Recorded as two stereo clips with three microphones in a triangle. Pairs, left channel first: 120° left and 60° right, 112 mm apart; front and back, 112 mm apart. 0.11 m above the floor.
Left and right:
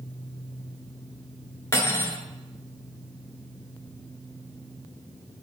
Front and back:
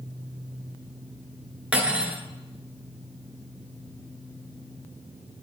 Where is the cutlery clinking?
115° left, 0.9 m.